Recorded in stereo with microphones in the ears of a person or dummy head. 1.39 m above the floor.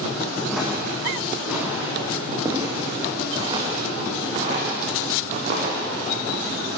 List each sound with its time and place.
0.5 s footsteps: 5° left (ahead or behind), 6 m; by 5.8 s 40° right (ahead or behind), 5.5 m